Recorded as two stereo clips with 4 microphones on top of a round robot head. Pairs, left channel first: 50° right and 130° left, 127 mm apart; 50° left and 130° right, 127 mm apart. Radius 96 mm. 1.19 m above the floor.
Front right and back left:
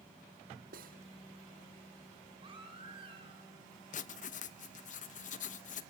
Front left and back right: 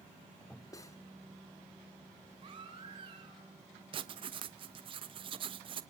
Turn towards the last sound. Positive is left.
turn(degrees=-75)